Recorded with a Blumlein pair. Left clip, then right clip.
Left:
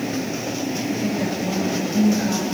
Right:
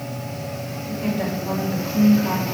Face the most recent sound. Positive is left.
turn(degrees=-35)